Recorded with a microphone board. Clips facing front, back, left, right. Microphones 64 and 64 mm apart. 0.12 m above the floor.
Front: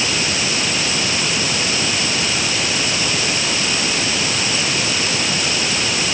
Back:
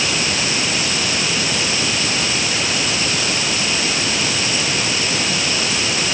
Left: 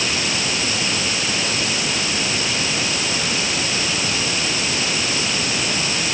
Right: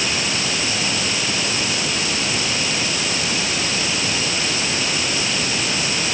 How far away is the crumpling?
No crumpling in this recording.